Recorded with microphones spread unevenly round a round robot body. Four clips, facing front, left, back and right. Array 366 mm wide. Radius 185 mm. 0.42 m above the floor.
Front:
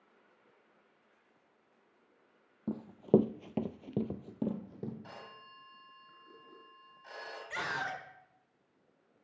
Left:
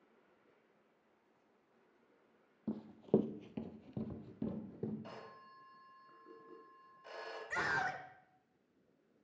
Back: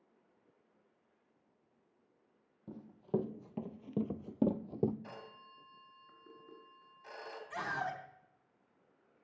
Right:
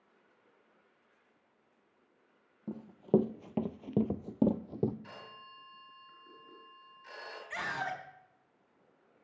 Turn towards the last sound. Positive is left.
turn(degrees=80)